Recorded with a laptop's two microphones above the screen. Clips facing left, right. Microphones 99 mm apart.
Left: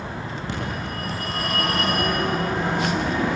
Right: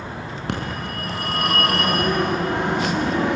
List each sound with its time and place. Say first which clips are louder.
0.5 s a phone ringing: right 3 dB; 70° right (ahead or behind), 6 m